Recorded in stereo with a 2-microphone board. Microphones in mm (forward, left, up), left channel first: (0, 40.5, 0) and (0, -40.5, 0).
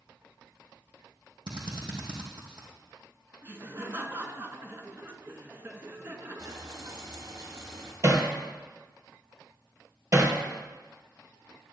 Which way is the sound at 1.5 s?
75° right (ahead or behind).